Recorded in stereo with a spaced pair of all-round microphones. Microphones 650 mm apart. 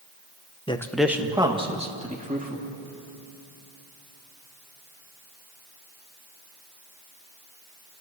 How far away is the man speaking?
About 1.0 m.